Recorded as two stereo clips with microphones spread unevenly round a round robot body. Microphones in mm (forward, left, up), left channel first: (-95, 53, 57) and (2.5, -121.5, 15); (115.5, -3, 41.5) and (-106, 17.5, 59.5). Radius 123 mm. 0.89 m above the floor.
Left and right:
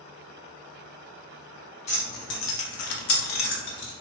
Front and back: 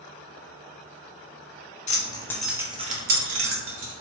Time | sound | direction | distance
1.9 | keys jangling | 55° left | 0.8 m